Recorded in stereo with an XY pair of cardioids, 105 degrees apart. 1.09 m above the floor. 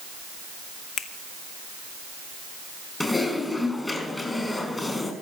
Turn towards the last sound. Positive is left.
turn(degrees=15)